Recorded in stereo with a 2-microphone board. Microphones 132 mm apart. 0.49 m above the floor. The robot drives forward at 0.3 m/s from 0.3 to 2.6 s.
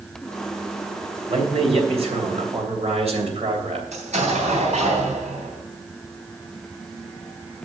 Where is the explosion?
75° right (ahead or behind), 3.5 m.